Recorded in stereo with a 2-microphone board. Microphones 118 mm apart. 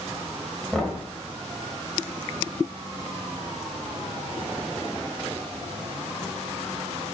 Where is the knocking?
5° left (ahead or behind), 1.6 m.